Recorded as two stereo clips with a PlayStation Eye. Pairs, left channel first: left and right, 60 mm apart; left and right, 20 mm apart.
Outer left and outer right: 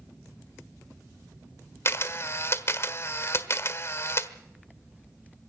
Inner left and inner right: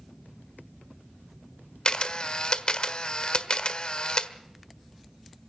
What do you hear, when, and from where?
1.9 s a camera shutter: 45° left (ahead or behind), 1.3 m